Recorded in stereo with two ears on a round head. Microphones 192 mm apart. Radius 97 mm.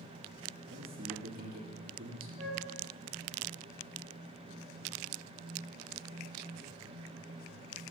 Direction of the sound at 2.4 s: 35° right (ahead or behind).